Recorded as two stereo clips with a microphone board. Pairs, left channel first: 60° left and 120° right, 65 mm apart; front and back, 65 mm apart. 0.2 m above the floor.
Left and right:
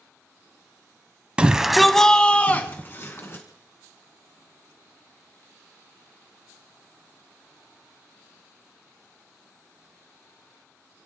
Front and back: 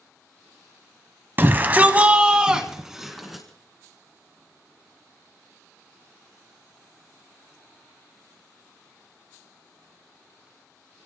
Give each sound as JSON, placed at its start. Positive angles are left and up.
{"t": 1.4, "sound": "a shout", "azimuth_deg": -175, "distance_m": 1.2}